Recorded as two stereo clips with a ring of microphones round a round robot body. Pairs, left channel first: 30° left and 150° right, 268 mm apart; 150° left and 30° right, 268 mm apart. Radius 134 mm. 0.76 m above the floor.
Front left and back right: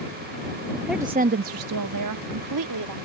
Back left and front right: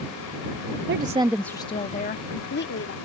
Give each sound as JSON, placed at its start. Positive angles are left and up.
{"t": 0.9, "sound": "a woman speaking", "azimuth_deg": -60}